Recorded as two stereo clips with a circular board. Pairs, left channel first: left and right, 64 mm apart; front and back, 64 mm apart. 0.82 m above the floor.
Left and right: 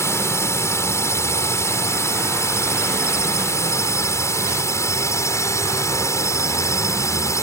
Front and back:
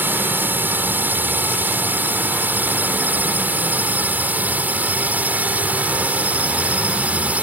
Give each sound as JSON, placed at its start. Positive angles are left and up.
{"t": 0.0, "sound": "a drone", "azimuth_deg": 125}